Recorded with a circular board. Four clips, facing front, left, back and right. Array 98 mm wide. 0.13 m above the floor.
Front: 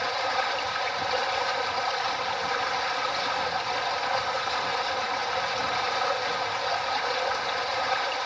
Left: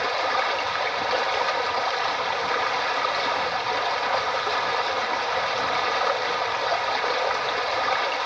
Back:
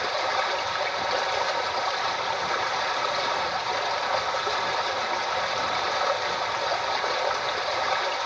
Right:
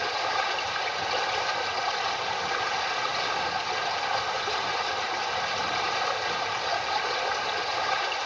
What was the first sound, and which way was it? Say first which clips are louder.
Running water: left 4 dB, back 1 dB; 120° left.